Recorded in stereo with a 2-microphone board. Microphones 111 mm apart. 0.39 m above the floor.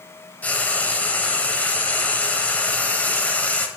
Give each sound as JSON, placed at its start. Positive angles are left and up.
{"t": 0.4, "sound": "frying", "side_deg": 15, "distance_m": 0.6}